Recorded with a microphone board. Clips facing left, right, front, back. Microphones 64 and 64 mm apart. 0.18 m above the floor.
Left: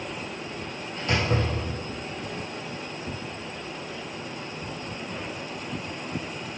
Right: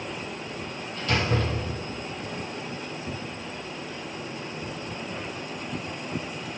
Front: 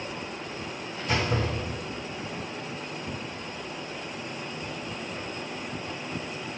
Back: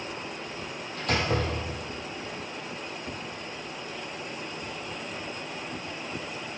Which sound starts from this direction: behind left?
A door slam, at 1.0 s.